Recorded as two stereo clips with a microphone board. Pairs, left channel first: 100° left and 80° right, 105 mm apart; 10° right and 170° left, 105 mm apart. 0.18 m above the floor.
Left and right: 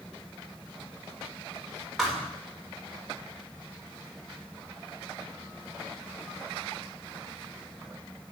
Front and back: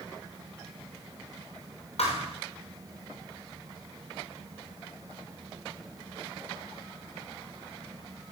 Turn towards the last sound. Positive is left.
turn(degrees=10)